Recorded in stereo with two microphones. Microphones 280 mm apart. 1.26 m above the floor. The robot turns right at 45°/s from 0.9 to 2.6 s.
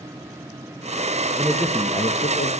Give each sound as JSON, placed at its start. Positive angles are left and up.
{"t": 1.4, "sound": "a man speaking", "azimuth_deg": -10, "distance_m": 1.3}